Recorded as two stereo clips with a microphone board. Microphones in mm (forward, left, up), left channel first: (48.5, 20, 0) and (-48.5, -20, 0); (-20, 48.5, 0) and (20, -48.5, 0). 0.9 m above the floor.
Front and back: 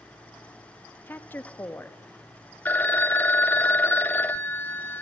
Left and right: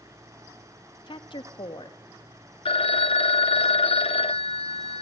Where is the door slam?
I don't hear a door slam.